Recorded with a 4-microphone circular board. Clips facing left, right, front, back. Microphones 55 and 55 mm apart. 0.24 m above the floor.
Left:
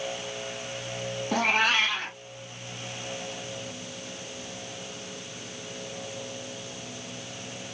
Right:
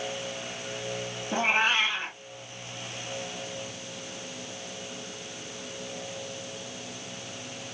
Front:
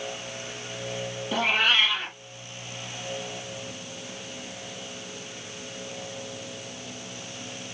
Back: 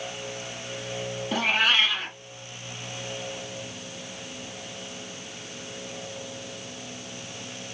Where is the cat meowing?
95° left, 2.5 m.